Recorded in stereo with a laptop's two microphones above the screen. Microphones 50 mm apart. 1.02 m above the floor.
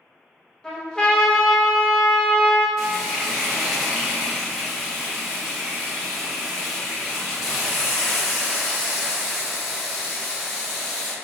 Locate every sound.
0.6 s a trumpet: 15° left (ahead or behind), 0.8 m
2.8 s frying: 5° left (ahead or behind), 1.4 m